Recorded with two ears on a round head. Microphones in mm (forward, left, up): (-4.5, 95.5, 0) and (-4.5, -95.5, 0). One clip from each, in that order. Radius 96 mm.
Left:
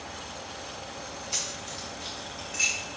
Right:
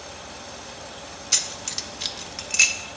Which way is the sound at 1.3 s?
50° right (ahead or behind).